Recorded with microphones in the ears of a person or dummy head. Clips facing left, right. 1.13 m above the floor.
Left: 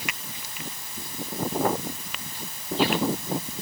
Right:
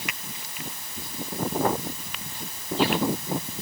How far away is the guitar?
No guitar in this recording.